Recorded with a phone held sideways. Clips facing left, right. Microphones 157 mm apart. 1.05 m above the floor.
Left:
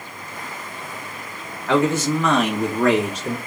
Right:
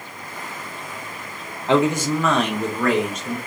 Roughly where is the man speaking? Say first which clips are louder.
Even; right.